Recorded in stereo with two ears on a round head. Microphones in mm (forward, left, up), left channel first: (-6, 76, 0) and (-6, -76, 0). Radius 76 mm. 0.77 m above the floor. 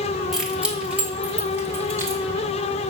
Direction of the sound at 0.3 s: Centre (ahead or behind).